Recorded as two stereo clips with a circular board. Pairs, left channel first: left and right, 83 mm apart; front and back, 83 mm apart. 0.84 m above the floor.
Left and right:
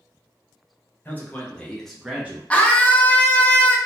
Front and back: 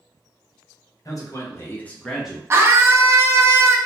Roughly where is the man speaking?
Ahead left.